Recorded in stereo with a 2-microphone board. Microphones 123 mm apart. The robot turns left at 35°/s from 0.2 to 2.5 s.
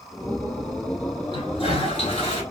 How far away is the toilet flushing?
About 1.0 m.